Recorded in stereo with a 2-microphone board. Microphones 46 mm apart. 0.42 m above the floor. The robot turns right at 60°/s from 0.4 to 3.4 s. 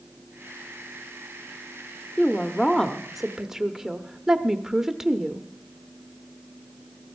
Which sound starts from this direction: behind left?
A woman speaking, at 2.2 s.